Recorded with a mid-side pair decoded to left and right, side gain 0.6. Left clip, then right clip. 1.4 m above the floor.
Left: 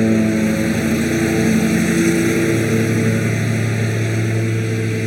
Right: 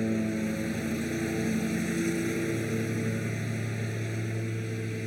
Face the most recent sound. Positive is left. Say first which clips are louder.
# left 14 dB
turn(degrees=60)